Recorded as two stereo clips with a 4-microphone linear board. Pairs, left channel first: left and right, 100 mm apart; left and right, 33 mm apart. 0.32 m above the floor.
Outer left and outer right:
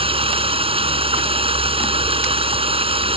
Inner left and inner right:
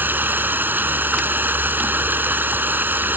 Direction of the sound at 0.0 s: 70° right (ahead or behind).